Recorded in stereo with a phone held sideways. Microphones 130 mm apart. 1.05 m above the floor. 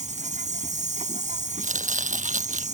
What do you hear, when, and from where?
0.0 s an insect: 70° right (ahead or behind)
1.6 s chopping: 75° right (ahead or behind)